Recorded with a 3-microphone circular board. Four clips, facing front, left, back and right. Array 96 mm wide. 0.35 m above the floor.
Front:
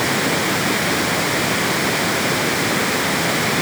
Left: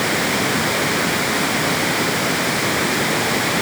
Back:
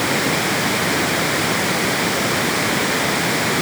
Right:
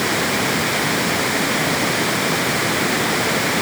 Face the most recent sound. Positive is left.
No sound to turn to.